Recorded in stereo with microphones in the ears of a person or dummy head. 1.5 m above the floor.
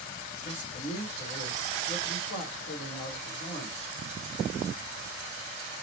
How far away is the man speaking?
About 1.2 m.